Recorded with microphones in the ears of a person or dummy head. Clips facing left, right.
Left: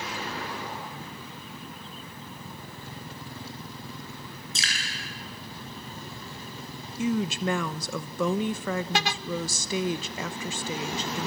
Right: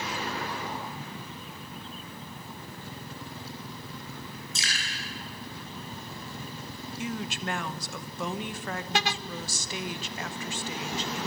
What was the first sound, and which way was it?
Dripping, 65° left (ahead or behind).